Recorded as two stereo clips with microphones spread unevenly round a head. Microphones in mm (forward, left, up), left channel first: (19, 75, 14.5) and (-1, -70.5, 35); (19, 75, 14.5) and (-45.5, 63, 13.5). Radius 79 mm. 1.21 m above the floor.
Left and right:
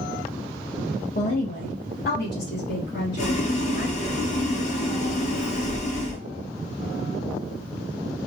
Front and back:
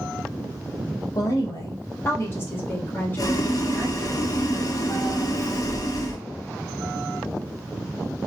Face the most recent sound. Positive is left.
turn(degrees=40)